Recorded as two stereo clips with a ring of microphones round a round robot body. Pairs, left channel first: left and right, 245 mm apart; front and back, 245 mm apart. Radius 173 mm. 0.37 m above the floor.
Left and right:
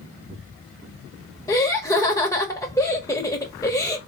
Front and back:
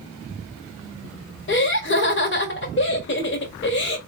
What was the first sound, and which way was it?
Laughter, 15° left.